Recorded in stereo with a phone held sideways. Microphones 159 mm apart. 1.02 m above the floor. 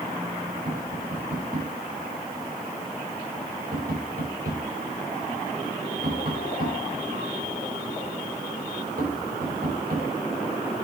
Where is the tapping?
70° right (ahead or behind), 5.5 m.